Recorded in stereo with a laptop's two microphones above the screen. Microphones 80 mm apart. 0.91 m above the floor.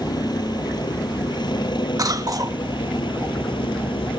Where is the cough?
50° right (ahead or behind).